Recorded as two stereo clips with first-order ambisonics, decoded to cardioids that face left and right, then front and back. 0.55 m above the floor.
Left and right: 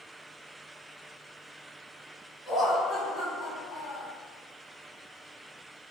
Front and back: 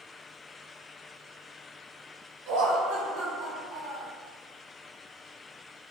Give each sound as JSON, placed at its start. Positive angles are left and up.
{"t": 2.5, "sound": "laughter", "azimuth_deg": 165, "distance_m": 1.0}